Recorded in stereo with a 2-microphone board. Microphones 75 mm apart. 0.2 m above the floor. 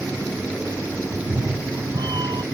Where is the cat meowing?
75° right (ahead or behind); by 2.4 s 65° right (ahead or behind).